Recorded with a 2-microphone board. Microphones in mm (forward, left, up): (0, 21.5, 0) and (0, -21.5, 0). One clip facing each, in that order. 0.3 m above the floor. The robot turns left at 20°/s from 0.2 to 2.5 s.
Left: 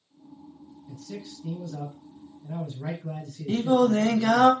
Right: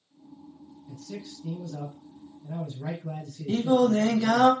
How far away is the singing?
About 0.7 m.